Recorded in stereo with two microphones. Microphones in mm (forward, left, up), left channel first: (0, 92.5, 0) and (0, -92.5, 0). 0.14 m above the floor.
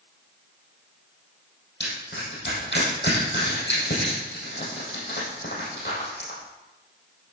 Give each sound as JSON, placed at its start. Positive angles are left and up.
{"t": 1.8, "sound": "crushing", "side_deg": 70, "distance_m": 4.0}